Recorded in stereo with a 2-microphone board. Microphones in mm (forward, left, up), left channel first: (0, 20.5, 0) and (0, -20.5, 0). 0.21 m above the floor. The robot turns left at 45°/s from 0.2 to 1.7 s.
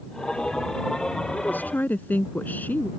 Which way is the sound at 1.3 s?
60° left (ahead or behind).